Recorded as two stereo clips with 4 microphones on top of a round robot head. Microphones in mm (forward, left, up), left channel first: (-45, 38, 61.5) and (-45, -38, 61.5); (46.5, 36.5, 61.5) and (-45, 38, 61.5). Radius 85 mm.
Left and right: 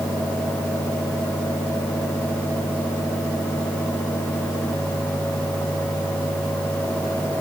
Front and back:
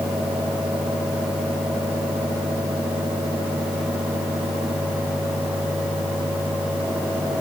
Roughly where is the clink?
No clink in this recording.